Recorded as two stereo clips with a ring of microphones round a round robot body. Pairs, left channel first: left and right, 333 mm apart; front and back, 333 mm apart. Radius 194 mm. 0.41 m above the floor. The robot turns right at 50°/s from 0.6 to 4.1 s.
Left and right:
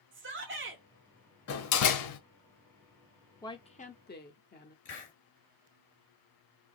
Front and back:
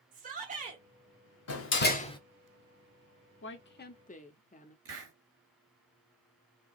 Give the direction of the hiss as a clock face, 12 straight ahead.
7 o'clock.